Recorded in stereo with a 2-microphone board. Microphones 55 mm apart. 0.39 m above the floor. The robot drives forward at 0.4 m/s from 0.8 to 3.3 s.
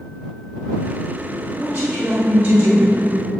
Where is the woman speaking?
35° right (ahead or behind), 1.7 m; by 3.0 s 45° right (ahead or behind), 1.5 m.